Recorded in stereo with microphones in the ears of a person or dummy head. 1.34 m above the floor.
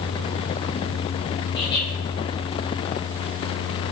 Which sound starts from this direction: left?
Laughter, at 1.5 s.